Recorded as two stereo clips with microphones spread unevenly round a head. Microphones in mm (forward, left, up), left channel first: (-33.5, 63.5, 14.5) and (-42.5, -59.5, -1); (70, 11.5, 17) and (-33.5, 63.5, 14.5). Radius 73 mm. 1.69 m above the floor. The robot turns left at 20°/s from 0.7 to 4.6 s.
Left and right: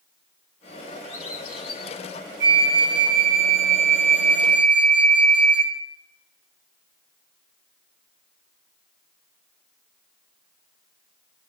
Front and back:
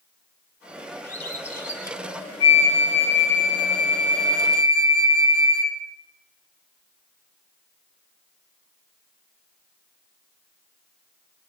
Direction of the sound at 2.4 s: 100° right.